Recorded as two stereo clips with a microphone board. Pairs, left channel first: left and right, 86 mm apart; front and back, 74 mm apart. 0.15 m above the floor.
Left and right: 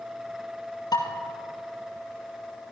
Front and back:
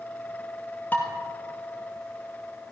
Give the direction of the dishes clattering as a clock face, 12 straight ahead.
10 o'clock.